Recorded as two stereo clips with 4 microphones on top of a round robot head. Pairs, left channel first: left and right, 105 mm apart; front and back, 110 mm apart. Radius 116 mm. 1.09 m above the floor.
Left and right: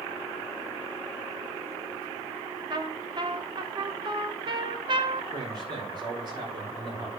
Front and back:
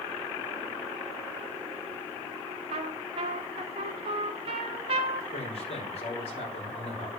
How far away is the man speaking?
About 4.5 m.